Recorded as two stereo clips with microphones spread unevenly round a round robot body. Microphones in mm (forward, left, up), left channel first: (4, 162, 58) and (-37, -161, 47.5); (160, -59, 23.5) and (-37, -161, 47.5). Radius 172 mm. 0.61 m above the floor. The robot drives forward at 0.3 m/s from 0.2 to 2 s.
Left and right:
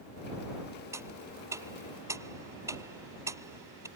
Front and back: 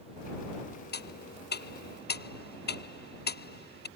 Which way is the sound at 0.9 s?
15° right.